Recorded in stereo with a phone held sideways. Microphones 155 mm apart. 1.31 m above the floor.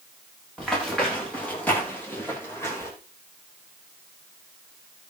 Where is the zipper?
No zipper in this recording.